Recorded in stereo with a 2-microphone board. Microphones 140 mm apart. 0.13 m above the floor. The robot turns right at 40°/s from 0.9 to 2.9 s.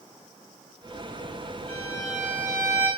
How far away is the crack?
No crack in this recording.